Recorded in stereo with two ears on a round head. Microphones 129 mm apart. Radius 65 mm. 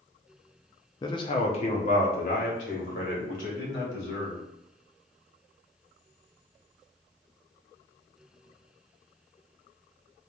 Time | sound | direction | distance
1.0 | a man speaking | 25° left (ahead or behind) | 0.6 m